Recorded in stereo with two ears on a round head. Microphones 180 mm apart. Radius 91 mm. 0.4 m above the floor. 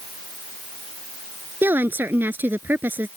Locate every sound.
1.6 s a woman speaking: 10° right (ahead or behind)